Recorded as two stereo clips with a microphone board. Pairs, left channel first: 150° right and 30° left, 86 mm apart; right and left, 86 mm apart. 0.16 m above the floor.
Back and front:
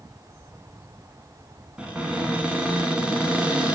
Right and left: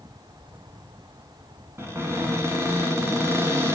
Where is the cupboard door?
95° left, 1.0 m.